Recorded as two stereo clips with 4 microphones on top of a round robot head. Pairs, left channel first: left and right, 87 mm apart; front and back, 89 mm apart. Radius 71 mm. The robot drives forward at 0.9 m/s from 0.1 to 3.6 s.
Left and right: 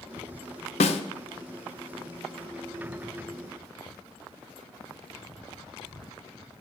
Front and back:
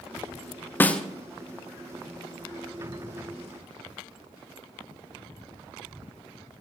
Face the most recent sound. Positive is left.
turn(degrees=165)